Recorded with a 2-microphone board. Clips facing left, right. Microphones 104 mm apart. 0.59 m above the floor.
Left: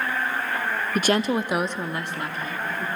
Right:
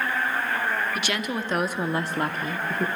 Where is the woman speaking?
45° left (ahead or behind), 1.0 m; by 2.9 s 60° right (ahead or behind), 1.5 m.